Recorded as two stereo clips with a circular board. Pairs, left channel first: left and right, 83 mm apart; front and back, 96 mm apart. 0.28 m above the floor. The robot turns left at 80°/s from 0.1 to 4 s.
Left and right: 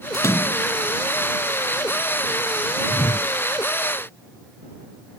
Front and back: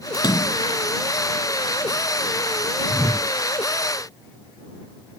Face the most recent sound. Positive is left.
turn(degrees=5)